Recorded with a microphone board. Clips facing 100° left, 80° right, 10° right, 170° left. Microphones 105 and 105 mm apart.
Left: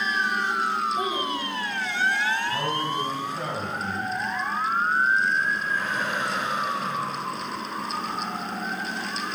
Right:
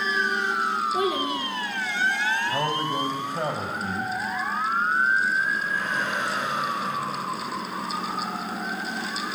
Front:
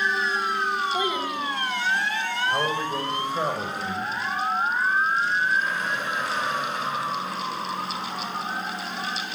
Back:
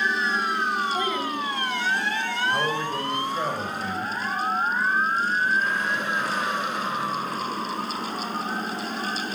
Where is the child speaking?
90° right, 1.6 m.